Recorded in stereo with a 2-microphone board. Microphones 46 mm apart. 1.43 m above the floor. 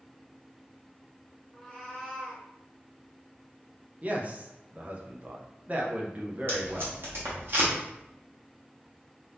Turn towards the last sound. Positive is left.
turn(degrees=-55)  # may be behind; listen again after turning